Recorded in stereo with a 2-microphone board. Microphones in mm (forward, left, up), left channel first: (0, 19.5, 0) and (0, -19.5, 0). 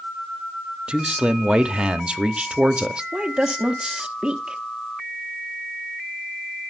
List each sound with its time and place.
0.9 s a man speaking: 30° right (ahead or behind), 0.7 m
3.1 s a woman speaking: 25° right (ahead or behind), 1.1 m